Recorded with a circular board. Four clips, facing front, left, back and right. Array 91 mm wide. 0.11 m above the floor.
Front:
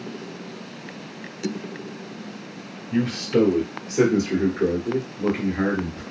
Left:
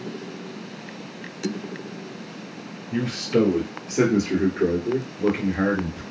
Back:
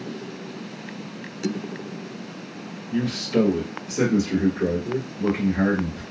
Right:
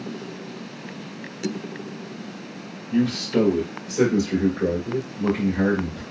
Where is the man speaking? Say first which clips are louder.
Right 1 dB, front 1 dB; 45° left, 2.0 m; by 6.0 s 80° left, 3 m.